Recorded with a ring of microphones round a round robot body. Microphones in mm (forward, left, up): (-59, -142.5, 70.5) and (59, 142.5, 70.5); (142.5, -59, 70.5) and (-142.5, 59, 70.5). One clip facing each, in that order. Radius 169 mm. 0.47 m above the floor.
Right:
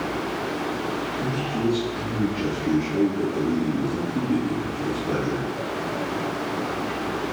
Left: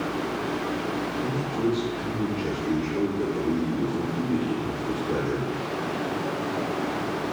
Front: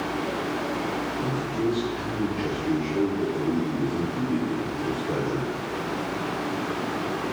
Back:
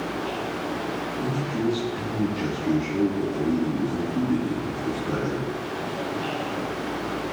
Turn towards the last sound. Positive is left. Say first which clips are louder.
# right 1 dB, back 1 dB
turn(degrees=-150)